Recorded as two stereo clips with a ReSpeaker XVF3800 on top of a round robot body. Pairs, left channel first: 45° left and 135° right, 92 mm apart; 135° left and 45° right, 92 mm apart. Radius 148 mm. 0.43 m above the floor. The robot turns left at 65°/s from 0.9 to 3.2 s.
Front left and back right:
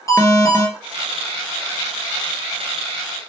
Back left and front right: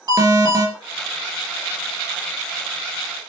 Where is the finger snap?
I don't hear a finger snap.